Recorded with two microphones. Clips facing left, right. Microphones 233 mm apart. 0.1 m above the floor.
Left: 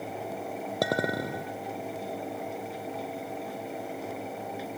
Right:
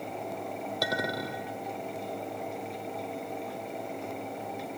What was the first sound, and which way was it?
A clink, 55° left (ahead or behind).